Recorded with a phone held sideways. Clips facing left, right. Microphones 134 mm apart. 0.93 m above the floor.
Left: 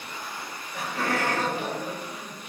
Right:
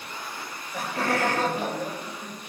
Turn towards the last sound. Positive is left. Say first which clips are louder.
# right 3 dB
turn(degrees=-35)  # may be behind; listen again after turning